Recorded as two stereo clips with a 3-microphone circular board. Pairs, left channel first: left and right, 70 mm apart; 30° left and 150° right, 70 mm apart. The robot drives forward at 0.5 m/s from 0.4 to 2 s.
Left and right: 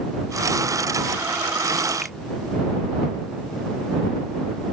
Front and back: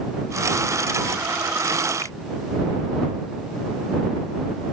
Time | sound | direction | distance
2.0 | a finger snap | 5° right | ?